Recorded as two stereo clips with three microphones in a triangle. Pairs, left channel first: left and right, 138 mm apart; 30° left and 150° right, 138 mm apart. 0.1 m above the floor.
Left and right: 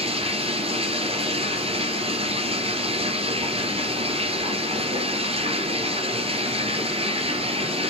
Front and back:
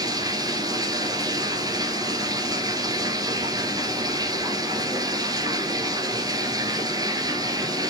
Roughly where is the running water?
Right.